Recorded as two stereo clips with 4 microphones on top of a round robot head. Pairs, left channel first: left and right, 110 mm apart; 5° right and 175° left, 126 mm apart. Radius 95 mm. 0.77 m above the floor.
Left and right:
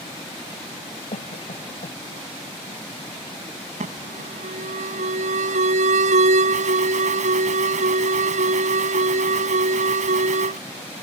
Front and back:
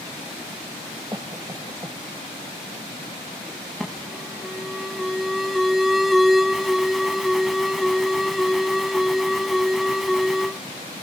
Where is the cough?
110° left.